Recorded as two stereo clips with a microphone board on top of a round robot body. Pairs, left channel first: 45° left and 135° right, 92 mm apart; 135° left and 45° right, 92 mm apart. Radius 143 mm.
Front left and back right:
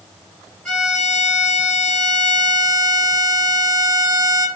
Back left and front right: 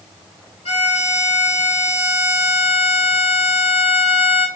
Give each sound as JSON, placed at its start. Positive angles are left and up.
{"t": 0.7, "sound": "a violin", "azimuth_deg": 130, "distance_m": 0.7}